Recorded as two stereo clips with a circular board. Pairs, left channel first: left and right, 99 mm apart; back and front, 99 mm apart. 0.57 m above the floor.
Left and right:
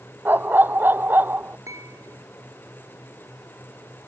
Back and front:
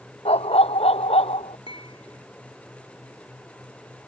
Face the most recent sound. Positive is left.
turn(degrees=-150)